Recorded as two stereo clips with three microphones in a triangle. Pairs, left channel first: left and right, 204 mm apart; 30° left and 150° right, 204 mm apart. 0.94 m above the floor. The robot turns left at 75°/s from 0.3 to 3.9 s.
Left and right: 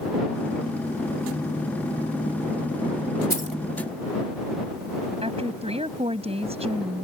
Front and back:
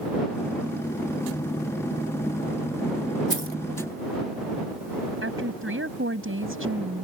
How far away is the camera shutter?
I don't hear a camera shutter.